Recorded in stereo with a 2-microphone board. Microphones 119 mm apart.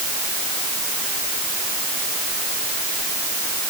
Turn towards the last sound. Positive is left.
No sound to turn to.